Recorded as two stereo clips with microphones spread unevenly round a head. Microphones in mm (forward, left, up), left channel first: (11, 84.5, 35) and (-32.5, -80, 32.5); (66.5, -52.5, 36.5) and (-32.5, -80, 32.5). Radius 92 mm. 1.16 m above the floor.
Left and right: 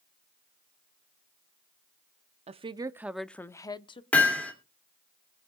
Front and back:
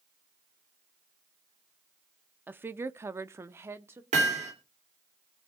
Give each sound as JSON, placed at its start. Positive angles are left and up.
{"t": 2.5, "sound": "a woman speaking", "azimuth_deg": -110, "distance_m": 0.6}
{"t": 4.1, "sound": "hammering", "azimuth_deg": 160, "distance_m": 2.5}